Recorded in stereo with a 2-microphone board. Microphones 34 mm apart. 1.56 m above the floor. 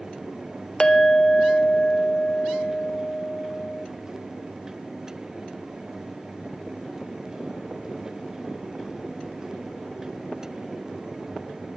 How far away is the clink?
About 0.6 m.